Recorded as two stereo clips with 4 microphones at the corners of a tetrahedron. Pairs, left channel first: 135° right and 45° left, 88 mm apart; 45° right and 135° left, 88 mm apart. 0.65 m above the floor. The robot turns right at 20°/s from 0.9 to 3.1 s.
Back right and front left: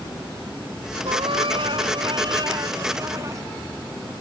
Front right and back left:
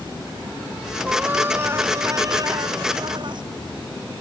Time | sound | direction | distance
1.1 | a cat meowing | 60° left | ?